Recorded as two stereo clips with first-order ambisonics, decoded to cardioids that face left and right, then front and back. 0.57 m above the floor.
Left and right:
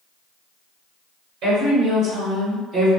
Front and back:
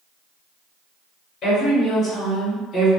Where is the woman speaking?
65° right, 1.8 m; by 2.9 s 50° right, 1.2 m.